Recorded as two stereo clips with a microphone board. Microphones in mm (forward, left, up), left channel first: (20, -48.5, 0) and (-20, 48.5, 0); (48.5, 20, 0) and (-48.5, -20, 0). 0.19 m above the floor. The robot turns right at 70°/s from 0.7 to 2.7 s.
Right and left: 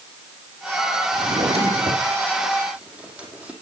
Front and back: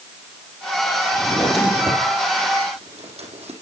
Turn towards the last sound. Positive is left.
turn(degrees=-170)